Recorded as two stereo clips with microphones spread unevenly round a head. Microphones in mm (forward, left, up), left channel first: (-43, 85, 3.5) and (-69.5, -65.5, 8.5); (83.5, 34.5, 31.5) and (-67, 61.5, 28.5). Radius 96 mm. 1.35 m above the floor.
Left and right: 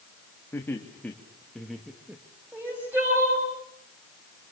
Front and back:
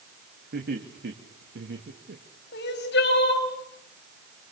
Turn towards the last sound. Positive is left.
turn(degrees=-20)